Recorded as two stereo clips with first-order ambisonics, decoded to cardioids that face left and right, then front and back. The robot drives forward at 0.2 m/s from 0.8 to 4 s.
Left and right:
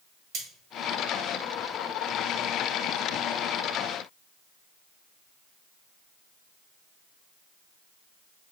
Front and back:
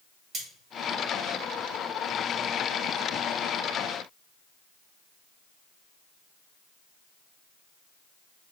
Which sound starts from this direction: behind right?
Cutlery clinking, at 0.3 s.